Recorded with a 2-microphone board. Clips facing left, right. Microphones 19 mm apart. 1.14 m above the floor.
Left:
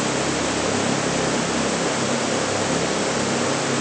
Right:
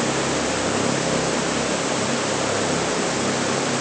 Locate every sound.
Only background noise.